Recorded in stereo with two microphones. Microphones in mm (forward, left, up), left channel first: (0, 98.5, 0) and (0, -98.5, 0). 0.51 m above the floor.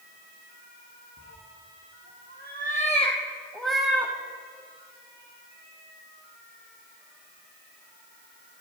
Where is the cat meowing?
80° left, 3 m; by 4.1 s 10° right (ahead or behind), 2.5 m.